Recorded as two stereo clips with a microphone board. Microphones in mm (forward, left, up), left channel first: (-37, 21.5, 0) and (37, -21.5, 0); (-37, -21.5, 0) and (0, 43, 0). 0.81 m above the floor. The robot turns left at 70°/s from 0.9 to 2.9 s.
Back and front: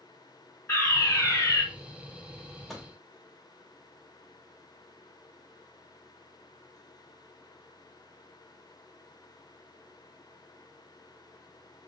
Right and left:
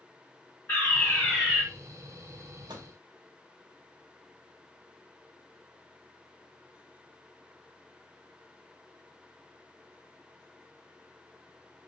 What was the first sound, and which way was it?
A fire alarm, 165° right.